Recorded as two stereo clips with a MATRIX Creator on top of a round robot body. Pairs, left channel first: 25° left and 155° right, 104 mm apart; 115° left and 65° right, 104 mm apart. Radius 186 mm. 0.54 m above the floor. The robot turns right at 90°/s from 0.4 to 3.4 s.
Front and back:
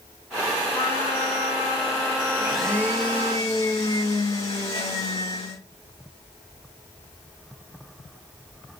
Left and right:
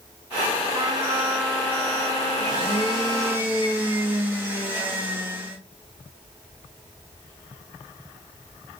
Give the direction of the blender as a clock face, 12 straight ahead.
3 o'clock.